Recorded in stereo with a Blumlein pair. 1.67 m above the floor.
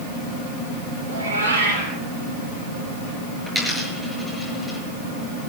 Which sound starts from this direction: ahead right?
A cat meowing, at 1.1 s.